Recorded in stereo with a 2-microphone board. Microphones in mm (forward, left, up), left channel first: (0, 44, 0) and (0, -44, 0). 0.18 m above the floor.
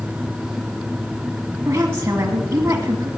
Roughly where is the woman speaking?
Right.